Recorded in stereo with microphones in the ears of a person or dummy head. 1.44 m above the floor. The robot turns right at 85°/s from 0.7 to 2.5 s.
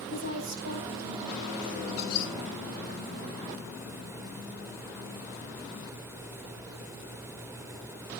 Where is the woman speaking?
110° right, 8.5 m; by 1.8 s 20° right, 8.5 m.